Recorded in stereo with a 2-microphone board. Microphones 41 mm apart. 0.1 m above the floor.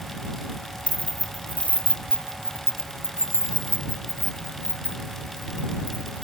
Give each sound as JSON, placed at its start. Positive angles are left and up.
{"t": 0.9, "sound": "keys jangling", "side_deg": 30}